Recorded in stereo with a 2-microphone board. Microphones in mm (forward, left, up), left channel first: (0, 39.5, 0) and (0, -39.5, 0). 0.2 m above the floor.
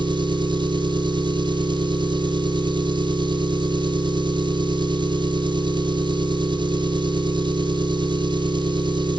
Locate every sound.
0.0 s an engine running: 75° right (ahead or behind), 1.5 m